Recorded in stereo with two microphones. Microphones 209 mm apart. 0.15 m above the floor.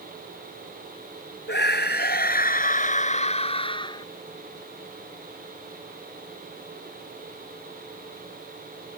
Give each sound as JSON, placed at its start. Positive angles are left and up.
{"t": 1.5, "sound": "a scream", "side_deg": 60}